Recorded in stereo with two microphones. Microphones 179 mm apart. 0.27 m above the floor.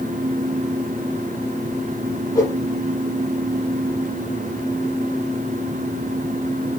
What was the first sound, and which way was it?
A whoosh, 15° left (ahead or behind).